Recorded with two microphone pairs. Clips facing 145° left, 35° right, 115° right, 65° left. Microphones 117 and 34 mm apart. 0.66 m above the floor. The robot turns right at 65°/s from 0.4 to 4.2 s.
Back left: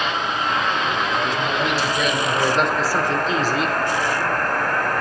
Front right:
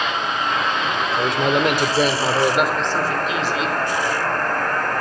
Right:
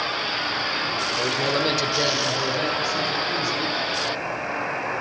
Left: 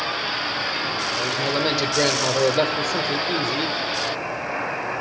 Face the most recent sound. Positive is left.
turn(degrees=145)